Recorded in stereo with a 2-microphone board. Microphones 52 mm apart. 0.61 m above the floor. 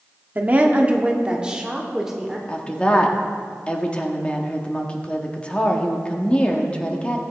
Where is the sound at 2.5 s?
20° left (ahead or behind), 1.2 m.